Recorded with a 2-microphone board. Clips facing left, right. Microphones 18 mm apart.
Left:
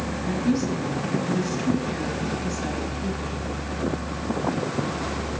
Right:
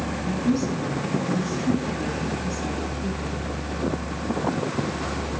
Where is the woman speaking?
40° left (ahead or behind), 4.5 m.